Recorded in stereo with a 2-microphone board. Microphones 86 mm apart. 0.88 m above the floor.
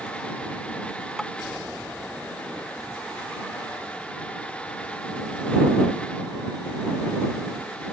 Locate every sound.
1.2 s tapping: 5° left (ahead or behind)